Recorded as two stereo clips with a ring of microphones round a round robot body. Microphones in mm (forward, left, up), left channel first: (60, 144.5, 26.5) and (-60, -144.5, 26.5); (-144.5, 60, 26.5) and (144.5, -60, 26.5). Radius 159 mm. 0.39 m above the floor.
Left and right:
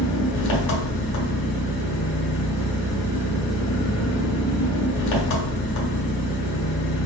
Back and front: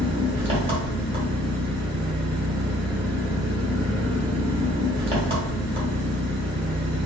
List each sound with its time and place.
0.0 s an engine running: 50° left, 1.4 m